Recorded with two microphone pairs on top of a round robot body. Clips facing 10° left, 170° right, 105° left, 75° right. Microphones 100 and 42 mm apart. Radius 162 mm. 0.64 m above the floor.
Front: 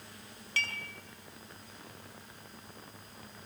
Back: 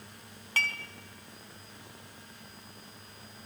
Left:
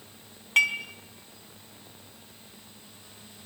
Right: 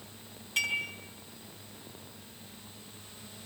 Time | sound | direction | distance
0.6 | dishes clattering | 140° left | 5 m